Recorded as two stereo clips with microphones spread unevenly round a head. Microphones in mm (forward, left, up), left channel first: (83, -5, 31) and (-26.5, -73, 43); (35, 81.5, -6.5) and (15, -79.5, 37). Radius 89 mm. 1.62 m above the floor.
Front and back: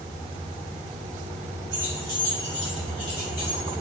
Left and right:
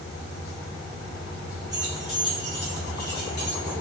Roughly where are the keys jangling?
Behind.